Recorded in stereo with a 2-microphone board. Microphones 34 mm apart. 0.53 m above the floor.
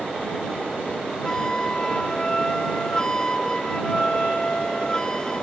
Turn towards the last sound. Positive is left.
turn(degrees=20)  # may be behind; listen again after turning